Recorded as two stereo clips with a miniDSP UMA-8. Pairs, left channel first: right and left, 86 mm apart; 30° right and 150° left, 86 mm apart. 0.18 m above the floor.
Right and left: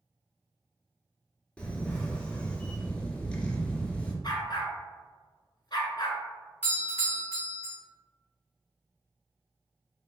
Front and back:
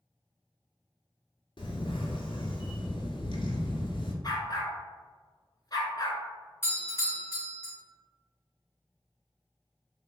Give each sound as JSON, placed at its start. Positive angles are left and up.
{"t": 1.6, "sound": "a camera shutter", "azimuth_deg": -15, "distance_m": 0.6}
{"t": 4.2, "sound": "a dog barking", "azimuth_deg": -65, "distance_m": 0.8}
{"t": 6.6, "sound": "a doorbell", "azimuth_deg": -45, "distance_m": 1.8}